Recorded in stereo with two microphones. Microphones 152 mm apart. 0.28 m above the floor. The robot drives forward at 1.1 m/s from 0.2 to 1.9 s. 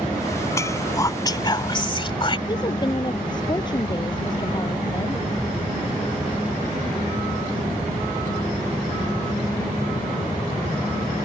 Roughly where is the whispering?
Centre.